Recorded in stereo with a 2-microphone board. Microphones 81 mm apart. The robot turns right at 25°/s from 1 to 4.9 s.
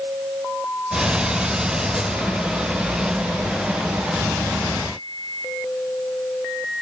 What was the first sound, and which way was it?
Only background noise.